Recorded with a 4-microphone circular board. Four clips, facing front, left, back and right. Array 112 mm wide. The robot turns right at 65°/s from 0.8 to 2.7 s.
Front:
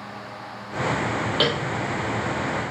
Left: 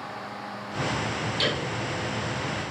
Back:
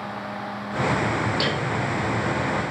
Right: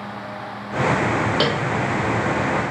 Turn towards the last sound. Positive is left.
turn(degrees=20)